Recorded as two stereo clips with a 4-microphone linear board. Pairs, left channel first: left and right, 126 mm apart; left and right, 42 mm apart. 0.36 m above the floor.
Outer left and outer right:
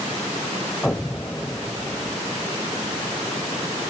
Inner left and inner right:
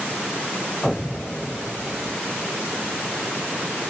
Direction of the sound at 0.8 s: 10° left (ahead or behind).